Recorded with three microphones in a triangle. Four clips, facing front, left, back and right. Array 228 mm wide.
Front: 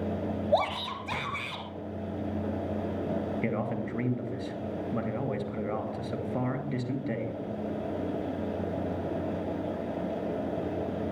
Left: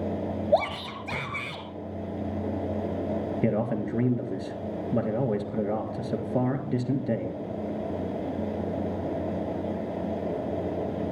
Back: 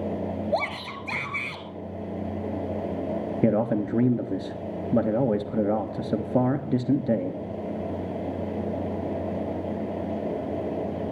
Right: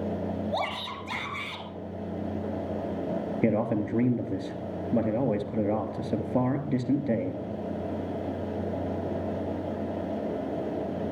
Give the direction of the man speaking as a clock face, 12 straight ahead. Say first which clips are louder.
Right 2 dB, back 8 dB; 6 o'clock.